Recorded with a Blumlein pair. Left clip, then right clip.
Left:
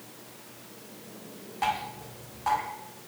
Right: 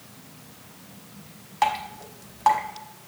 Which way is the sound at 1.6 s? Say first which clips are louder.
Right 5 dB; 40° right.